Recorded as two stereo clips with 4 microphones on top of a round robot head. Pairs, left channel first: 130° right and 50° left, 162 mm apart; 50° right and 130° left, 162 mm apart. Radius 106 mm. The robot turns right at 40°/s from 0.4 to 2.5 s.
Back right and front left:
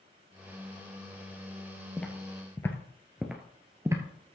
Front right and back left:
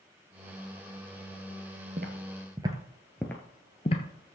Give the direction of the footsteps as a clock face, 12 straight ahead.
7 o'clock.